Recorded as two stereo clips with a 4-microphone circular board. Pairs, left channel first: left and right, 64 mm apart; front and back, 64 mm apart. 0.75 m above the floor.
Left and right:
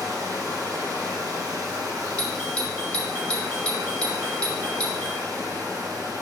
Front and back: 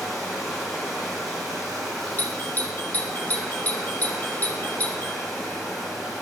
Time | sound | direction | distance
0.0 | running water | 90° right | 3 m
2.2 | a doorbell | 35° left | 1.1 m